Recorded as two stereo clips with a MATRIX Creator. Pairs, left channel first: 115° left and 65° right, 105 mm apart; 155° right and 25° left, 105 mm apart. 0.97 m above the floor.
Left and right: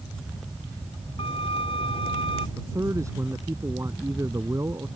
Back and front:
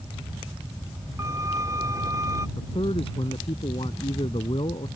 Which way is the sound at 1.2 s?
85° left.